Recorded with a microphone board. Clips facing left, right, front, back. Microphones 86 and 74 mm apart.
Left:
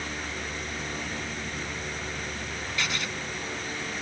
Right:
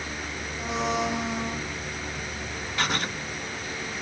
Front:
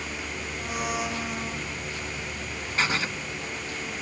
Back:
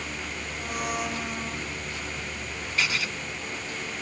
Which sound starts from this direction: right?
A blender, at 0.6 s.